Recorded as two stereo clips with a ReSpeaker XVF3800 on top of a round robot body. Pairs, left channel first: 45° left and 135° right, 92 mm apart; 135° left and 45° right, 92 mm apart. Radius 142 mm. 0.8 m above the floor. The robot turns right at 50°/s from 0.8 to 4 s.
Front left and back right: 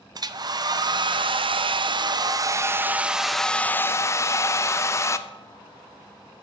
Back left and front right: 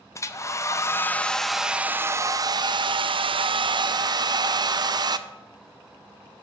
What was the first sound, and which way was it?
A hair dryer, 170° right.